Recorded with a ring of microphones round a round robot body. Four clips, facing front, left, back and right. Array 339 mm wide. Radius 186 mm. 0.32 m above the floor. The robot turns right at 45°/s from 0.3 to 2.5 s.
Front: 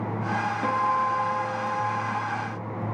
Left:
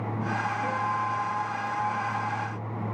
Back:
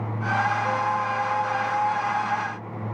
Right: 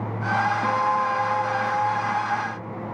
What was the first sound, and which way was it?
A guitar, 50° right.